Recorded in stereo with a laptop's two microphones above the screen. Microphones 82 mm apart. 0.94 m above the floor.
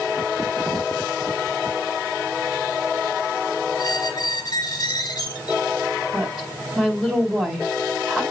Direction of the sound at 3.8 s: 50° left (ahead or behind).